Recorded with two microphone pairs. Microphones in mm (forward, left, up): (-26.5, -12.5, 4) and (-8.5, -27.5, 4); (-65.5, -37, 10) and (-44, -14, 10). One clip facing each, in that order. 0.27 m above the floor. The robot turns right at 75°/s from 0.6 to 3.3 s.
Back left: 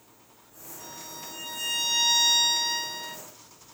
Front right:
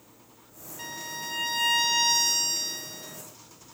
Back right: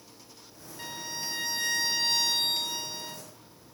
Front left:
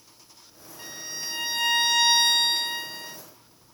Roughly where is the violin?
Ahead right.